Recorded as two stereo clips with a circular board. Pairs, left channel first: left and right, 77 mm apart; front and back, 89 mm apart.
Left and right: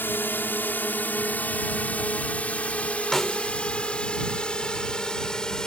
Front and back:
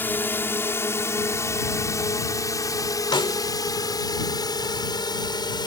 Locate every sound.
0.0 s a drone: 50° left; by 5.7 s 10° left
3.1 s a snare drum: 5° left